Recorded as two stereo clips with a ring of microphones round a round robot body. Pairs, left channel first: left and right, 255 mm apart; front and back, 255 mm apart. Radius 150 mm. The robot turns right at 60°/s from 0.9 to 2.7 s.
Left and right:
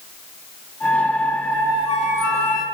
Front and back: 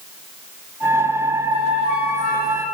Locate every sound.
1.5 s a flute: straight ahead, 4.5 m; by 2.6 s 70° left, 4.5 m